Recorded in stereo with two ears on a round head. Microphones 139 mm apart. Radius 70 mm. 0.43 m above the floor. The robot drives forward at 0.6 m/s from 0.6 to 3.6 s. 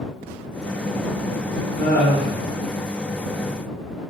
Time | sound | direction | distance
1.8 | laughter | 10° left (ahead or behind) | 0.8 m